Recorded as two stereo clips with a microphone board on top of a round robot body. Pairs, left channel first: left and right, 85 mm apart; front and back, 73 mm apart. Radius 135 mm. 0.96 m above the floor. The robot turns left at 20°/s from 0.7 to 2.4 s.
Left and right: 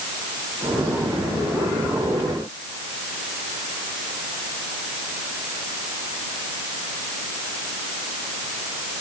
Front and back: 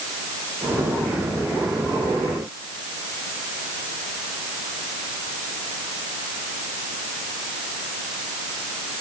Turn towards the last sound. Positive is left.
No sound to turn to.